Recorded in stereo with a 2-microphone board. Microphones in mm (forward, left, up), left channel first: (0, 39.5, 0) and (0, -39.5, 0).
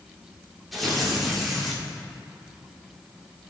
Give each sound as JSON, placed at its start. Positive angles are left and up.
{"t": 0.7, "sound": "tearing paper", "side_deg": 0, "distance_m": 3.5}